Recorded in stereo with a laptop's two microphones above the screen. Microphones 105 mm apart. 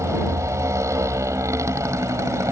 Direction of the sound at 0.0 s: 30° right (ahead or behind).